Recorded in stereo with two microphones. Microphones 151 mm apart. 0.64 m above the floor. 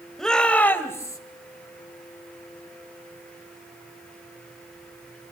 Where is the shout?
5° left (ahead or behind), 2.5 m; by 1.2 s 20° left (ahead or behind), 2.5 m.